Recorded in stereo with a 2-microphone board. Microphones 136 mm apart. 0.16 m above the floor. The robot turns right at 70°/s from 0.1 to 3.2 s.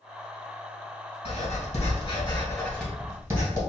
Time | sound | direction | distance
1.2 | writing | 55° left (ahead or behind) | 1.9 m